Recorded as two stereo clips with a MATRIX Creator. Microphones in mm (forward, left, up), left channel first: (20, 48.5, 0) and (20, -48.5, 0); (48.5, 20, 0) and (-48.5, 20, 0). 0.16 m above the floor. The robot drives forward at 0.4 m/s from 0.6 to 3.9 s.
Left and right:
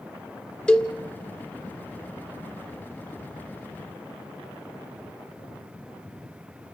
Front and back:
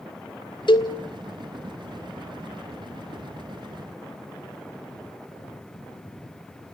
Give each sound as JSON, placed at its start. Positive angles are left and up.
{"t": 0.7, "sound": "a cowbell", "azimuth_deg": 10, "distance_m": 1.8}